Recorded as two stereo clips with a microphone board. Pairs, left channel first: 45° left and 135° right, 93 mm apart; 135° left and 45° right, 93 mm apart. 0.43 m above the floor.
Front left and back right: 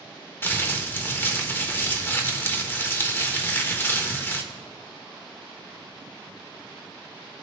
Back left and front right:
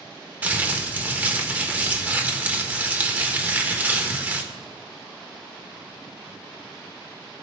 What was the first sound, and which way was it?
Crumpling, 5° left.